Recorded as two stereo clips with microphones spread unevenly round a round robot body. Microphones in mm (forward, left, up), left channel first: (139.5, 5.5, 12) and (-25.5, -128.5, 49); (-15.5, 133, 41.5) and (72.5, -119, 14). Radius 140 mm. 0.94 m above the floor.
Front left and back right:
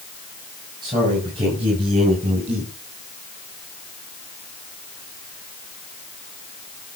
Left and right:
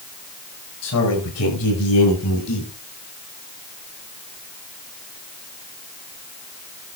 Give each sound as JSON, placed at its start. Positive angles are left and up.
{"t": 0.8, "sound": "a man speaking", "azimuth_deg": 145, "distance_m": 8.0}